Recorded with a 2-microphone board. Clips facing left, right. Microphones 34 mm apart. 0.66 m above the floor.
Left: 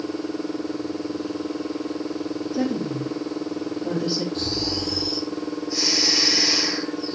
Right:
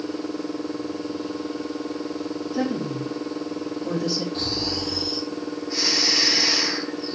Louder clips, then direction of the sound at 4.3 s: Left 1 dB; 40° right (ahead or behind).